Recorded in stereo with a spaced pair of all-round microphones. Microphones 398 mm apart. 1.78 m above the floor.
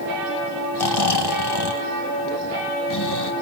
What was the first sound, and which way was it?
Snoring, 75° left (ahead or behind).